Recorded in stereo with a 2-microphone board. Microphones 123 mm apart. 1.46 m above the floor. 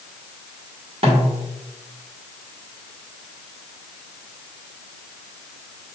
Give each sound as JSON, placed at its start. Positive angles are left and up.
{"t": 1.0, "sound": "a snare drum", "side_deg": -55, "distance_m": 1.3}